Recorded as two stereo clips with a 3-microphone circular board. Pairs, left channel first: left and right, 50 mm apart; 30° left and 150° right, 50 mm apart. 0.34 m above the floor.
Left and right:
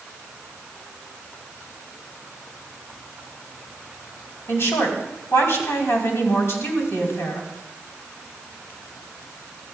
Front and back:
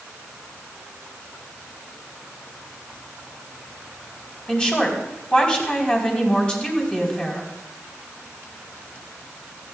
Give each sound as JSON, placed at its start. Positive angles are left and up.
{"t": 4.5, "sound": "a woman speaking", "azimuth_deg": 95, "distance_m": 2.5}